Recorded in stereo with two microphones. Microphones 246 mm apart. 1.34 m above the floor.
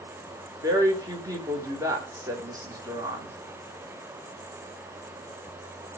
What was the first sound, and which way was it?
A woman speaking, 15° right (ahead or behind).